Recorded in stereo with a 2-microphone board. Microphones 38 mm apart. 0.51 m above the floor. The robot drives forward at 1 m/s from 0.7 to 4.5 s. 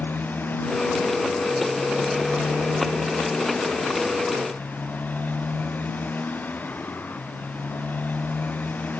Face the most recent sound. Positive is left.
turn(degrees=45)  # may be behind; listen again after turning